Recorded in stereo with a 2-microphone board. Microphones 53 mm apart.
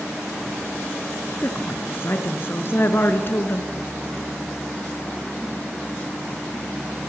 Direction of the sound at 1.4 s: 45° left (ahead or behind).